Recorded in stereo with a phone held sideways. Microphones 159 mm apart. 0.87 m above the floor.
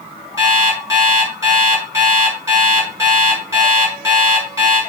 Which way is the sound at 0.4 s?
15° right (ahead or behind).